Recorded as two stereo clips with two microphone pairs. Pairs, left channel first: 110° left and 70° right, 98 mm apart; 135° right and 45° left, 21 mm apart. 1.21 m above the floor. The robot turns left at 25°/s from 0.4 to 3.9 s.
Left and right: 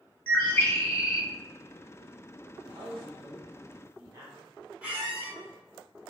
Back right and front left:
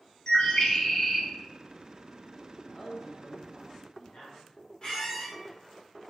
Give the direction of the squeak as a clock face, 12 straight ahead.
5 o'clock.